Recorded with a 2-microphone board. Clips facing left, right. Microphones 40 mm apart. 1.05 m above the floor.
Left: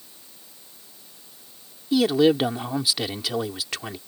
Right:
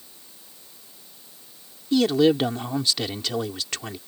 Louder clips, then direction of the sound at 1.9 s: Even; 10° left (ahead or behind).